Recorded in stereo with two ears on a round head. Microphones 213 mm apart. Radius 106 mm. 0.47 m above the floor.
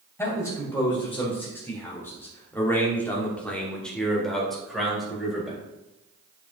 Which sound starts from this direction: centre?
A man speaking, at 0.2 s.